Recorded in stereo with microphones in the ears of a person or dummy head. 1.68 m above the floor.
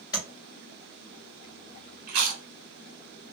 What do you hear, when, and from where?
0.1 s tapping: 25° left (ahead or behind), 2.5 m
2.1 s chewing: 60° right (ahead or behind), 1.3 m